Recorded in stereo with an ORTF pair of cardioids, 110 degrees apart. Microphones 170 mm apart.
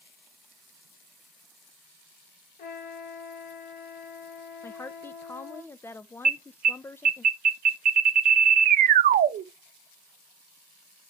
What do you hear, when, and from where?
2.6 s a trumpet: 60° left, 4.5 m
4.6 s a woman speaking: 15° left, 0.8 m
6.2 s an alarm: 60° right, 1.2 m